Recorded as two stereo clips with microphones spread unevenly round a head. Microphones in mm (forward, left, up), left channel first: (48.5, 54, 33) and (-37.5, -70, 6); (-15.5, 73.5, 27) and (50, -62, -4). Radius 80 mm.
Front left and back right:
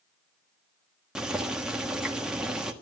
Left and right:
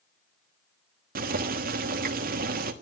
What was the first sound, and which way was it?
Boiling, 40° right.